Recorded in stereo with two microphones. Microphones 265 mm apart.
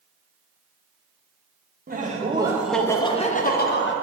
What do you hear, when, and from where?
1.9 s laughter: 35° right (ahead or behind), 0.8 m; by 3.9 s 50° left (ahead or behind), 0.9 m